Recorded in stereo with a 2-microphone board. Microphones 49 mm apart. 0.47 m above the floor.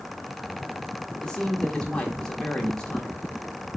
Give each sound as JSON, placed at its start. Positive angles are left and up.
{"t": 1.2, "sound": "a man speaking", "side_deg": 20, "distance_m": 1.1}